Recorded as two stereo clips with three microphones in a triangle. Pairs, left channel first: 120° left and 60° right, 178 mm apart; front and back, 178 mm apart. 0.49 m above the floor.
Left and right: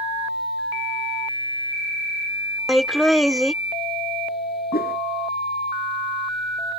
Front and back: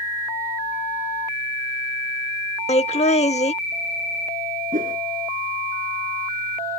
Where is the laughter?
30° left.